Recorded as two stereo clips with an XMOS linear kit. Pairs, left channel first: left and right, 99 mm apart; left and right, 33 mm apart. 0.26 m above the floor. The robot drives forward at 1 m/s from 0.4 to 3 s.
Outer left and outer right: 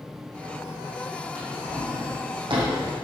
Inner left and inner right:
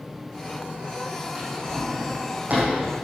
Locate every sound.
1.4 s a drawer: 50° right (ahead or behind), 6 m; by 2.8 s 60° right (ahead or behind), 5 m